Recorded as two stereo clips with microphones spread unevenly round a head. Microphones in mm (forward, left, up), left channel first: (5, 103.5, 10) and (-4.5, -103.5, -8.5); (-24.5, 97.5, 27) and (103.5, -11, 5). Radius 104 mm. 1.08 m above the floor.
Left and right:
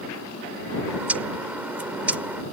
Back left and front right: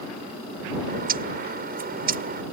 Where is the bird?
10° right.